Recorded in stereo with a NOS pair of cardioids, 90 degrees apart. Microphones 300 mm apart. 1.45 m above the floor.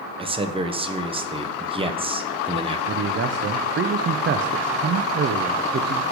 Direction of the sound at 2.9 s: 40° right.